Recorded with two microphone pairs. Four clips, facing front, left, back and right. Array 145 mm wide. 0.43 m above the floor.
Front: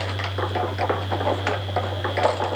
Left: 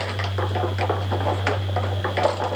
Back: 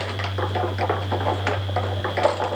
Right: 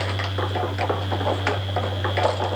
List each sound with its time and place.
Only background noise.